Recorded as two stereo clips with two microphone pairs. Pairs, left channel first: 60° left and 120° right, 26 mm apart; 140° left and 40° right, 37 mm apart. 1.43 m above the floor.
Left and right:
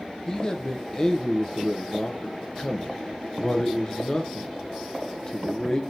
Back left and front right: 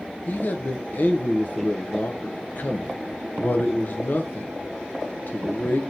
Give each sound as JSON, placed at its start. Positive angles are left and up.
{"t": 0.3, "sound": "a man speaking", "azimuth_deg": 115, "distance_m": 0.6}